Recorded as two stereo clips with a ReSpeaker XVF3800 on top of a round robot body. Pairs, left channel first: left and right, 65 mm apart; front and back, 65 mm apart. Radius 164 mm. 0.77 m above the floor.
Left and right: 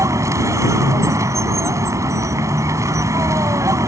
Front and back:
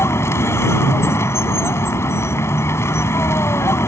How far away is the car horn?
I don't hear a car horn.